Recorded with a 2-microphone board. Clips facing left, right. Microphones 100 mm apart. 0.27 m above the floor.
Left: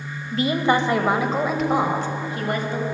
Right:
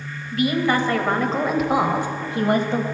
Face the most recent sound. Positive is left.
turn(degrees=-35)  # may be behind; listen again after turning